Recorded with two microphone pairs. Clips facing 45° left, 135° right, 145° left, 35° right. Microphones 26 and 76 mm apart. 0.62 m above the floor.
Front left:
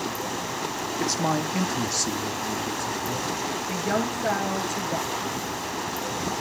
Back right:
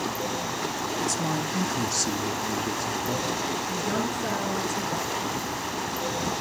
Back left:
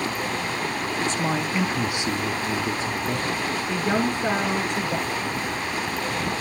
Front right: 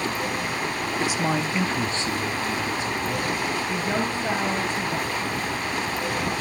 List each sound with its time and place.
1.0 s a man speaking: 40° left, 1.4 m; by 3.5 s 175° right, 2.0 m
3.7 s a woman speaking: 125° left, 8.5 m